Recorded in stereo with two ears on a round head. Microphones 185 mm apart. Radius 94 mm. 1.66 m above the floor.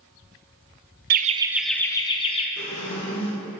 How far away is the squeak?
About 2.5 m.